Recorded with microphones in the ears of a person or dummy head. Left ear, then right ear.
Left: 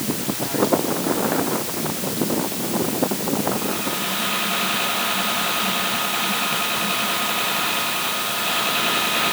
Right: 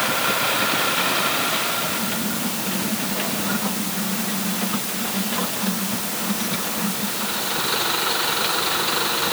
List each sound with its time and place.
Only background noise.